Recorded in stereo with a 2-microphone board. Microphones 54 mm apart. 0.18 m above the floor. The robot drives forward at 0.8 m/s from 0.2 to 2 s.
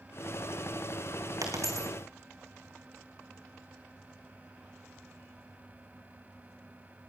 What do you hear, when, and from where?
1.4 s a dropped coin: 75° right (ahead or behind), 3.5 m; by 1.9 s 70° right (ahead or behind), 4 m